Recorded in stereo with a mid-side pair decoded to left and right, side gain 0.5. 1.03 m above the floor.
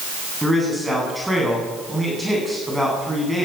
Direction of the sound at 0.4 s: 5° right.